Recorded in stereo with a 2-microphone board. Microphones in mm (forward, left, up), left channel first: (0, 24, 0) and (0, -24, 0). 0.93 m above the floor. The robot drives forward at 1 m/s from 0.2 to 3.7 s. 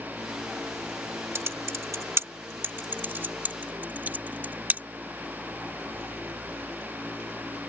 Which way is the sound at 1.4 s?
70° right (ahead or behind).